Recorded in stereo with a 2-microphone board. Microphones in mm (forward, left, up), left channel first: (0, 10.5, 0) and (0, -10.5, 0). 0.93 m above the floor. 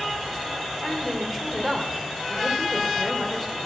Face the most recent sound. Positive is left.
turn(degrees=5)  # may be behind; listen again after turning